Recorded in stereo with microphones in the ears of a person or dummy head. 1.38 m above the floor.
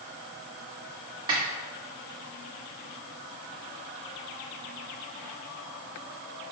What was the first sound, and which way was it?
A snare drum, 20° right (ahead or behind).